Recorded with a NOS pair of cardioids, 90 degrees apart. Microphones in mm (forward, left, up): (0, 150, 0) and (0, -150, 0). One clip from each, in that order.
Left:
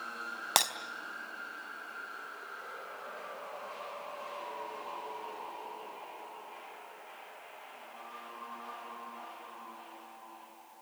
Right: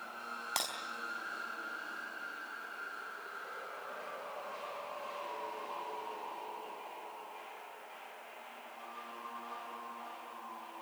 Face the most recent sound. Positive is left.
turn(degrees=55)